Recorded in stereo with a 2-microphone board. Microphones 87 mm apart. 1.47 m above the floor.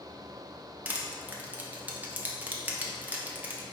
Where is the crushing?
20° right (ahead or behind), 0.5 m.